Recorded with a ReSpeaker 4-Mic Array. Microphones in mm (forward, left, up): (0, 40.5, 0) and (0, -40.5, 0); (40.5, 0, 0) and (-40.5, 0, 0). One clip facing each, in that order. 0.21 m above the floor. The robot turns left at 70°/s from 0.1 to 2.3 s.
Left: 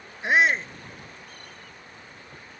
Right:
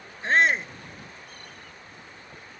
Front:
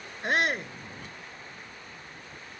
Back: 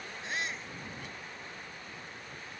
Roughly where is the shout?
Ahead.